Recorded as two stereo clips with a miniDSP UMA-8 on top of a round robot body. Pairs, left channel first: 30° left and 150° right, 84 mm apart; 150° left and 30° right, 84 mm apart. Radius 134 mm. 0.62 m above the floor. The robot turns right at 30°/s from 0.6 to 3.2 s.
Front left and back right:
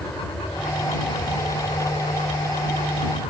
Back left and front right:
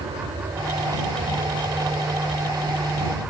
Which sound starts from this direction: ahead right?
An aircraft, at 0.0 s.